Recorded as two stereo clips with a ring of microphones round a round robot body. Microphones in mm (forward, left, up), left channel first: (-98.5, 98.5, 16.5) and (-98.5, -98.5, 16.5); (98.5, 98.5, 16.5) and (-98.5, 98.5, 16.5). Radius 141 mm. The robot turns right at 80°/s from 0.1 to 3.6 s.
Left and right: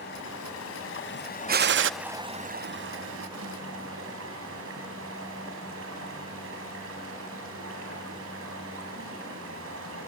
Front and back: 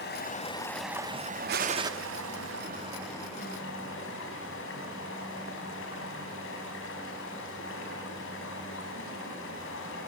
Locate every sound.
0.0 s running water: 30° left, 3.5 m; by 10.1 s 50° right, 3.5 m
1.5 s a gunshot: 135° right, 0.6 m; by 1.9 s 100° right, 0.6 m